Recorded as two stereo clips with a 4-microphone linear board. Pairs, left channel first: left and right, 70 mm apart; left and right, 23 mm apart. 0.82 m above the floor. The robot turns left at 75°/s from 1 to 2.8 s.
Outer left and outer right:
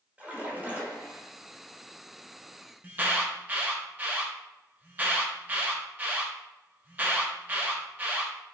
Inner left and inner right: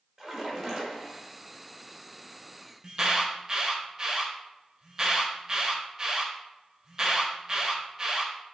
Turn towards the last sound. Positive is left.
turn(degrees=-25)  # may be behind; listen again after turning